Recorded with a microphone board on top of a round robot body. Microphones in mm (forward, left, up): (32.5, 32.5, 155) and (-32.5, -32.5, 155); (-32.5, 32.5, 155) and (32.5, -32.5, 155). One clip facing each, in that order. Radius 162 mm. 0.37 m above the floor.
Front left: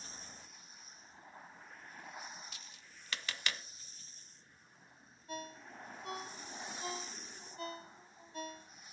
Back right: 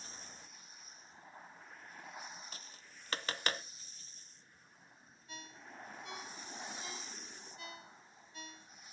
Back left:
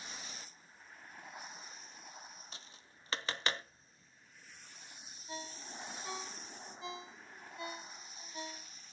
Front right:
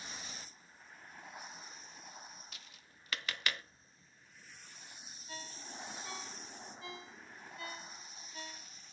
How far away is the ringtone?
About 0.9 m.